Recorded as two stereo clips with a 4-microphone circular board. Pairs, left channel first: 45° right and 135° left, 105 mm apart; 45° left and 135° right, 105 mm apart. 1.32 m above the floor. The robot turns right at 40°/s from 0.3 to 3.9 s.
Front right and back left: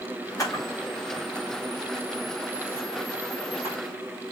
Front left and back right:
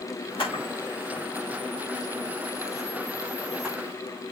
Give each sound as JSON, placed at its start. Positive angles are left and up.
{"t": 0.4, "sound": "a camera shutter", "azimuth_deg": 10, "distance_m": 5.0}